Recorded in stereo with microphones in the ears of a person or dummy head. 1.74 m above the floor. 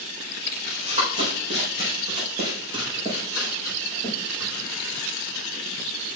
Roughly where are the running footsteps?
Right.